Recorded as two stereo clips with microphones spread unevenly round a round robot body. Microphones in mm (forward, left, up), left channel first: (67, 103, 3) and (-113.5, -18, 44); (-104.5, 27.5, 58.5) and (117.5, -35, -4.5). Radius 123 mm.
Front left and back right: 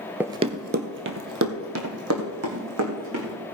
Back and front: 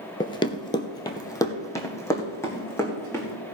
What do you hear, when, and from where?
0.2 s running footsteps: 155° left, 0.5 m; by 3.3 s 120° right, 3 m